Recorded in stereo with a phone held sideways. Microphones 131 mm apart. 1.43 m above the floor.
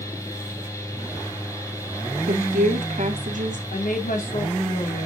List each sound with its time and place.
0.0 s a fan: 25° left (ahead or behind), 2.5 m
2.3 s a woman speaking: 70° right (ahead or behind), 1.8 m
3.7 s a woman speaking: 75° left (ahead or behind), 2.5 m